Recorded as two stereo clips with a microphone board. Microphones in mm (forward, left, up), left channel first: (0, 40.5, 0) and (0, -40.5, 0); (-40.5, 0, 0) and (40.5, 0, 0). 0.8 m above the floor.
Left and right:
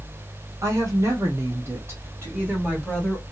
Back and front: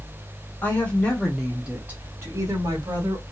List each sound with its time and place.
0.6 s a woman speaking: 125° right, 1.3 m; by 3.2 s 15° right, 1.6 m